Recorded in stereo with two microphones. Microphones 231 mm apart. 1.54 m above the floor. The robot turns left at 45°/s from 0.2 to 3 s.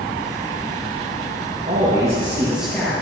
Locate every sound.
1.7 s a man speaking: 135° right, 2 m; by 2.9 s 170° left, 2 m